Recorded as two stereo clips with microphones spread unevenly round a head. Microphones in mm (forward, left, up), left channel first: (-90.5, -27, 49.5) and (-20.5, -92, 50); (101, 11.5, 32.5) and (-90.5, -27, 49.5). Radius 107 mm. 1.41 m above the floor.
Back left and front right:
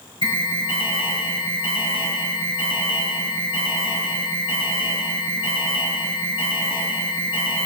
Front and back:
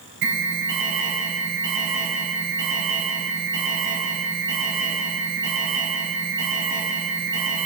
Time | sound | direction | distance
0.2 | an alarm | 160° left | 6 m